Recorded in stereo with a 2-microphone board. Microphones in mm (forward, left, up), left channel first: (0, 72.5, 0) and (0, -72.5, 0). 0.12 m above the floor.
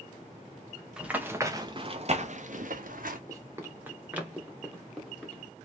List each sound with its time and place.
1.0 s running footsteps: 5° right (ahead or behind), 1.1 m; by 3.2 s 85° right, 1.2 m
3.3 s running footsteps: 25° right (ahead or behind), 1.4 m; by 5.4 s centre (ahead or behind), 2 m